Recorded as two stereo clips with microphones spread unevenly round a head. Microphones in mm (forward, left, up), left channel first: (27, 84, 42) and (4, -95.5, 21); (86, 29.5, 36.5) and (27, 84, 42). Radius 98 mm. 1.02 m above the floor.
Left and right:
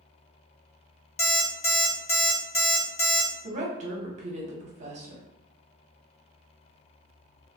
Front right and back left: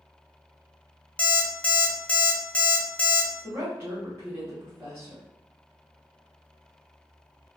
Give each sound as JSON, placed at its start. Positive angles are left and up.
{"t": 1.2, "sound": "an alarm clock", "azimuth_deg": 35, "distance_m": 0.7}
{"t": 3.4, "sound": "a woman speaking", "azimuth_deg": -150, "distance_m": 0.8}